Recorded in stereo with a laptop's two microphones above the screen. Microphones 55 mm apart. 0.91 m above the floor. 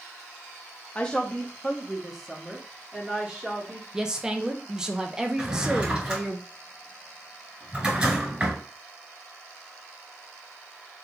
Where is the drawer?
20° right (ahead or behind), 3.5 m.